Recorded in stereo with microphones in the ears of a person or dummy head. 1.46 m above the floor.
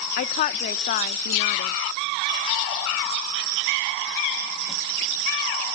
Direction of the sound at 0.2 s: 35° left (ahead or behind).